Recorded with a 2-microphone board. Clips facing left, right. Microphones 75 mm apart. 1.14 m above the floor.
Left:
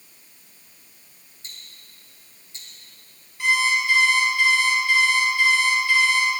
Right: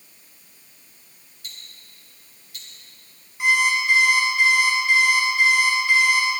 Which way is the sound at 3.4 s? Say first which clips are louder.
Right 1 dB; 20° right (ahead or behind).